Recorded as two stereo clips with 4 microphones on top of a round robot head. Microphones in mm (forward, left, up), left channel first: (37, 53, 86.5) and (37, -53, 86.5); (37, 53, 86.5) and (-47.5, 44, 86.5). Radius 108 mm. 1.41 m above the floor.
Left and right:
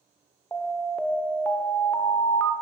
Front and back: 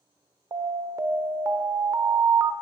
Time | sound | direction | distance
0.5 | an alarm | 155° left | 0.7 m